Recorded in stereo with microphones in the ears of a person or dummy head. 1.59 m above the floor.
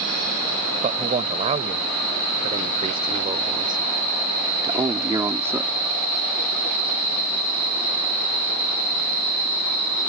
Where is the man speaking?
35° right (ahead or behind); by 5.7 s 10° right (ahead or behind).